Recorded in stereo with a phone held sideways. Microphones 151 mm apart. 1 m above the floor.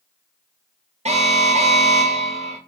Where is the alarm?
45° right (ahead or behind), 0.5 m.